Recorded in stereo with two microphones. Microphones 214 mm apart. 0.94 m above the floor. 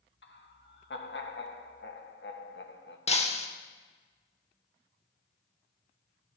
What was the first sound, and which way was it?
Laughter, 60° left (ahead or behind).